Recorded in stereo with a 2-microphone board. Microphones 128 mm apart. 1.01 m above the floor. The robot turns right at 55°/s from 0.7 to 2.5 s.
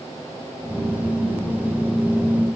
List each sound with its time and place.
Only background noise.